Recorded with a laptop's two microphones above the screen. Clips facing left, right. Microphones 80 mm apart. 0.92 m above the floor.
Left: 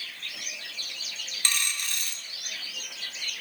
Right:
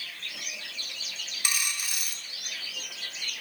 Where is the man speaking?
No man speaking in this recording.